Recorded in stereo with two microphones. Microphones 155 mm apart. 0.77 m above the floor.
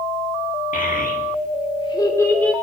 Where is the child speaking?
65° left (ahead or behind), 1.2 m; by 2.5 s 10° left (ahead or behind), 1.5 m.